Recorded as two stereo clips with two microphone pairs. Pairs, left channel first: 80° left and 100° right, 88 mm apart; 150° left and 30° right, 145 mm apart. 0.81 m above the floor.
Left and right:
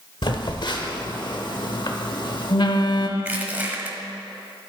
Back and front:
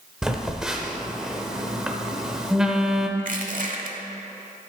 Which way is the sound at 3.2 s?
35° right.